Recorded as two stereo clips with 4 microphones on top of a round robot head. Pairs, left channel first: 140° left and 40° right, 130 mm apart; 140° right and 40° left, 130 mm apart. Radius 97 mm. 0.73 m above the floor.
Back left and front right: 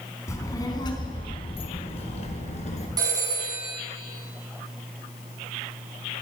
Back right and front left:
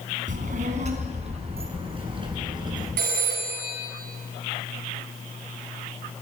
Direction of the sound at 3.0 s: 25° left.